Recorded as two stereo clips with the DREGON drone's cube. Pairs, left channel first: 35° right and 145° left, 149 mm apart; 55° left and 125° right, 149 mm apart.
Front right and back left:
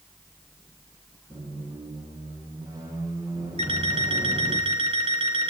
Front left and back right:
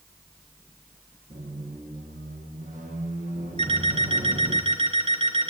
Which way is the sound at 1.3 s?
150° right.